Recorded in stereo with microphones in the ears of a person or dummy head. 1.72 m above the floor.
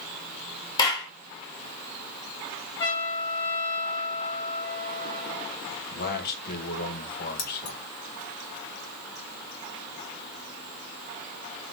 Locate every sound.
0.8 s a clap: 25° left (ahead or behind), 1.3 m
2.8 s a trumpet: 25° left (ahead or behind), 2.5 m
5.7 s a man speaking: 55° left (ahead or behind), 1.4 m
7.4 s keys jangling: 45° left (ahead or behind), 0.8 m